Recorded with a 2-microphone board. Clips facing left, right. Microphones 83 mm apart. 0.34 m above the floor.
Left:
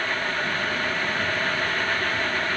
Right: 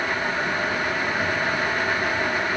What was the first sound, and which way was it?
Only background noise.